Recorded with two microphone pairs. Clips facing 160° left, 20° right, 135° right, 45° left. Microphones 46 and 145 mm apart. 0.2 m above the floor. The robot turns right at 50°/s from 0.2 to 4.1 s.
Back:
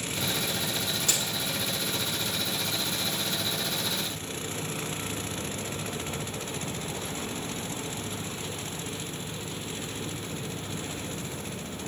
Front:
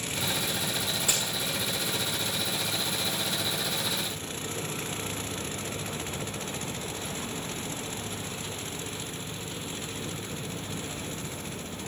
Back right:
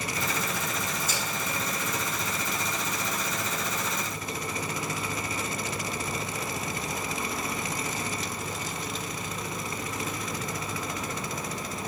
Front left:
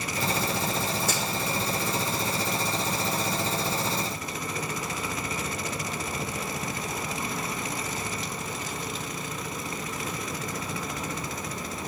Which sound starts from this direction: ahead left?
A crack, at 1.0 s.